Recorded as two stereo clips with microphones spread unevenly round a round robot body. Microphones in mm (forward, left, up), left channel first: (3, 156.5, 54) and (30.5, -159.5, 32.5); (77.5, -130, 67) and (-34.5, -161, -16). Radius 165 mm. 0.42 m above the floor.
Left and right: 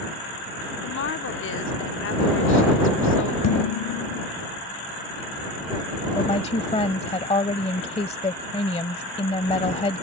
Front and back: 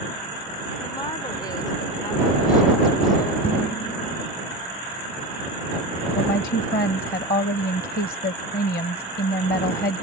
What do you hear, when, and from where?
0.8 s a woman speaking: 115° left
3.4 s dishes clattering: 125° left
6.1 s a woman speaking: 20° left